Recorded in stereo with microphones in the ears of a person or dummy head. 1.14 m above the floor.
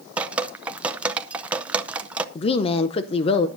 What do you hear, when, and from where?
0.2 s dripping: 5° right (ahead or behind), 0.6 m
2.4 s a woman speaking: 35° left (ahead or behind), 0.5 m